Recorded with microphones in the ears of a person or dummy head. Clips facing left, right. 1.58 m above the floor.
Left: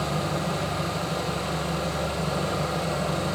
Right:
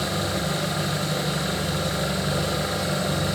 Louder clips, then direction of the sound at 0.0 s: Right 1 dB; 15° right (ahead or behind).